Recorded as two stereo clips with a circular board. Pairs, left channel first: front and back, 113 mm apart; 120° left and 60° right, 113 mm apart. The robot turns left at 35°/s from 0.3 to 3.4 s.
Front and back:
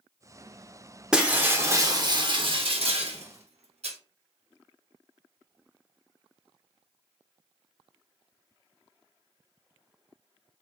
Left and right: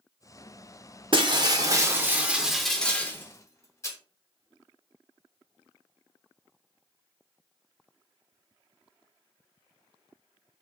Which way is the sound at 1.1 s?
100° right.